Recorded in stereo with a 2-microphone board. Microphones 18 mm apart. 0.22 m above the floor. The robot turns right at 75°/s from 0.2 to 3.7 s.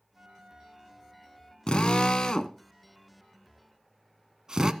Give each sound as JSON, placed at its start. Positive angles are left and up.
{"t": 0.1, "sound": "a flute", "azimuth_deg": -70, "distance_m": 0.6}
{"t": 1.7, "sound": "a drill", "side_deg": 55, "distance_m": 0.8}